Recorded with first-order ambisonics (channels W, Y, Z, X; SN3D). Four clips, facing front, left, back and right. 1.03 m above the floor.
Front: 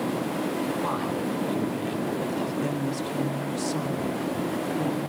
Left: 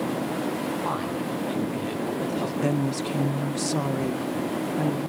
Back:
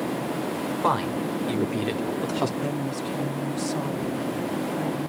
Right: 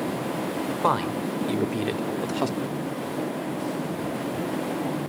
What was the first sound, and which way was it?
A woman speaking, 120° right.